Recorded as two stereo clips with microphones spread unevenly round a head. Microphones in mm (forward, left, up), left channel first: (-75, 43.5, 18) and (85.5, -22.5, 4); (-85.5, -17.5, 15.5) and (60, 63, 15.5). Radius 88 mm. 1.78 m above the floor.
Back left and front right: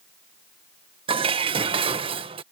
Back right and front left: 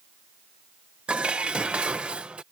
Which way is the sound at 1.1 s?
50° right.